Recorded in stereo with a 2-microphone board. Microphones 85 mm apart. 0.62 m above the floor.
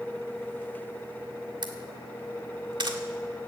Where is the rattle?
I don't hear a rattle.